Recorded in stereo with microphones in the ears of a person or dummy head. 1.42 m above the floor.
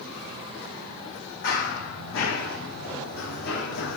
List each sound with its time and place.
1.4 s running footsteps: 50° left (ahead or behind), 3.5 m; by 4.0 s 65° left (ahead or behind), 3.5 m